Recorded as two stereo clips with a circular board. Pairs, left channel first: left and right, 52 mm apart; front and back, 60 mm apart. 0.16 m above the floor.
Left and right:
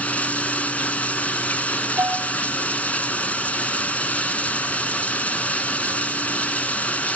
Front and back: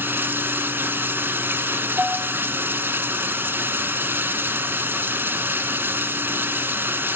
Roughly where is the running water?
Behind left.